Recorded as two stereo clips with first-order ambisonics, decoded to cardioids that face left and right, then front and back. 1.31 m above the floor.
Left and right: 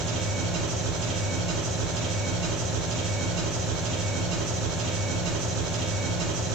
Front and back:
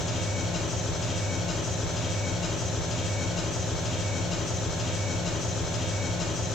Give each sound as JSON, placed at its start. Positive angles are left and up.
{"t": 0.0, "sound": "an engine running", "azimuth_deg": -70, "distance_m": 2.5}